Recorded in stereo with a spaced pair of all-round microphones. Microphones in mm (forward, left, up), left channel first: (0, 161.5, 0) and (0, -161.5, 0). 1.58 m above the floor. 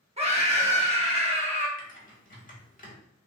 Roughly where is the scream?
Centre.